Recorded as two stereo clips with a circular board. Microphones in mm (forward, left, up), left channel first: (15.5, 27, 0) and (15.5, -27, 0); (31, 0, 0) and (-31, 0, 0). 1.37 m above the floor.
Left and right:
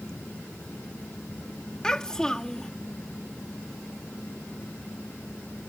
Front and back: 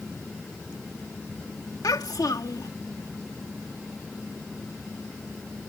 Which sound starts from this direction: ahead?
A child speaking, at 1.8 s.